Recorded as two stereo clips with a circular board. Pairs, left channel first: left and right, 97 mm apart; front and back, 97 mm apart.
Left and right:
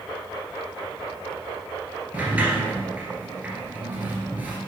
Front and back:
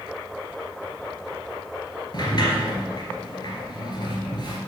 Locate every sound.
2.1 s a sliding door: 20° right, 2.0 m